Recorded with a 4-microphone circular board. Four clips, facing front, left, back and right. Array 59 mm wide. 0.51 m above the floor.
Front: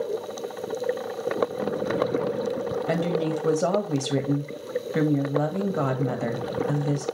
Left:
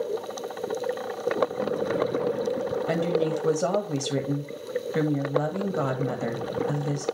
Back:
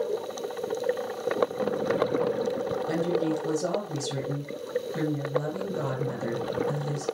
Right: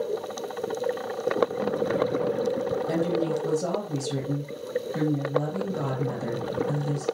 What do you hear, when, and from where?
2.9 s a woman speaking: 35° left, 2.5 m